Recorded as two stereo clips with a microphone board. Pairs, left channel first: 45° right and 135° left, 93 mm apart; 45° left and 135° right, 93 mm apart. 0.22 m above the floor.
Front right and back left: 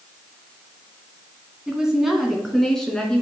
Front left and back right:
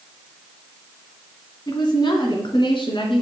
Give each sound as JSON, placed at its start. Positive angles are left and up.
{"t": 1.7, "sound": "a woman speaking", "azimuth_deg": 55, "distance_m": 1.5}